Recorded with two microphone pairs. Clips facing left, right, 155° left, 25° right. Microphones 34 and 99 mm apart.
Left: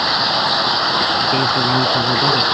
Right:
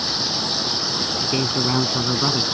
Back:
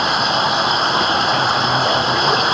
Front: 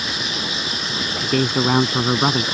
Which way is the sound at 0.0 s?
130° left.